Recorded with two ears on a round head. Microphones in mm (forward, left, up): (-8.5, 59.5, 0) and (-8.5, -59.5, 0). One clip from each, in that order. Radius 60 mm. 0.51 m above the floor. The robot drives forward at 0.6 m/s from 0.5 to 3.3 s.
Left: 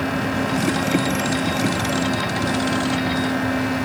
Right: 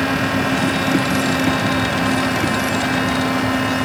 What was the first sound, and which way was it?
Only background noise.